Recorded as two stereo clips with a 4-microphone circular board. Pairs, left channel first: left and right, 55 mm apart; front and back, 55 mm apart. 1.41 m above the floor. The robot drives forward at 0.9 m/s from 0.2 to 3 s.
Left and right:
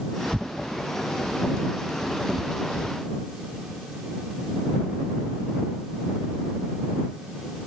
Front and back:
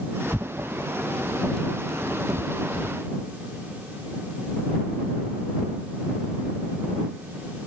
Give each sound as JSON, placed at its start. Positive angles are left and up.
{"t": 0.3, "sound": "tearing paper", "azimuth_deg": -40}